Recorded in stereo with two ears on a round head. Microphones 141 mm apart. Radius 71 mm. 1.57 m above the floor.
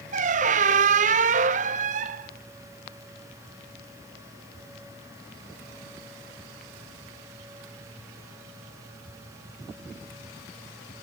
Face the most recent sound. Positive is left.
turn(degrees=-50)  # may be behind; listen again after turning